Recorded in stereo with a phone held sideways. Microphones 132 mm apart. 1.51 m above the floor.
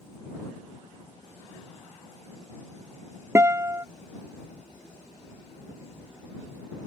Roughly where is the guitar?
Right.